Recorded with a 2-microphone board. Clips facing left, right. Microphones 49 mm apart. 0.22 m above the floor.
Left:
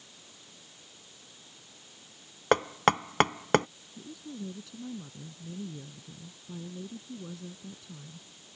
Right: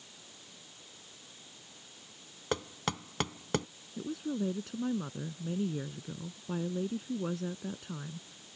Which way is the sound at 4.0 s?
50° right (ahead or behind).